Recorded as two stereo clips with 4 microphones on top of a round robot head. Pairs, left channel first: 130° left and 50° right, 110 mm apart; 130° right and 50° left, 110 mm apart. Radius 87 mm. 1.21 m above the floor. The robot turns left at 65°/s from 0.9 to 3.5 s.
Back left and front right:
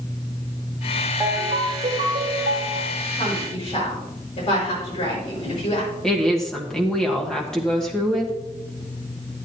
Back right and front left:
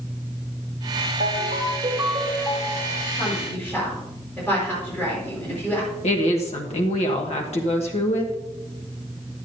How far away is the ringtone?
About 2 m.